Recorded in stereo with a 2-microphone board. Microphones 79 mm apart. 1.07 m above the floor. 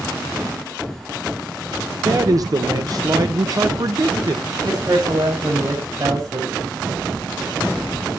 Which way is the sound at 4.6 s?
40° right (ahead or behind).